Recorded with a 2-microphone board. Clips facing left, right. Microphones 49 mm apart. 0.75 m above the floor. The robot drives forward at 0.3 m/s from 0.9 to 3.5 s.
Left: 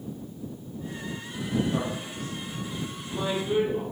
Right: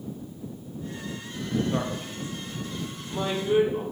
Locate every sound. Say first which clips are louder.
1.7 s a man speaking: right 1 dB; 25° right (ahead or behind), 0.5 m; by 3.8 s 15° right (ahead or behind), 0.8 m